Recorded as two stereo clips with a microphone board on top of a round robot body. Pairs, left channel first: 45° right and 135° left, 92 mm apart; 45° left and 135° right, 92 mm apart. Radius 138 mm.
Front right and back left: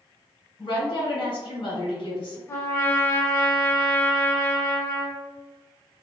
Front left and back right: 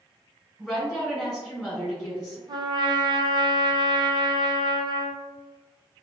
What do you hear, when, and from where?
0.6 s a woman speaking: 45° right, 1.5 m
2.5 s a trumpet: 105° right, 0.6 m